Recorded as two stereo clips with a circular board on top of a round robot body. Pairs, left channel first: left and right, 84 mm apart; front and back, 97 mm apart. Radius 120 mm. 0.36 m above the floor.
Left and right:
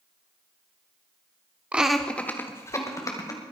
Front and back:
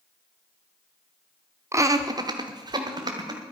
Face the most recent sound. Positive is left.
turn(degrees=135)